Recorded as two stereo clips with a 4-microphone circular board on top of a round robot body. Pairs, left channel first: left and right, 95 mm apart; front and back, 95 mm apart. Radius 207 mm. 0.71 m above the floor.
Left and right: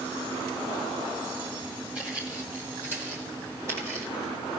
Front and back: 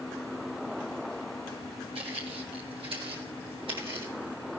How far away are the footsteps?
About 1.3 m.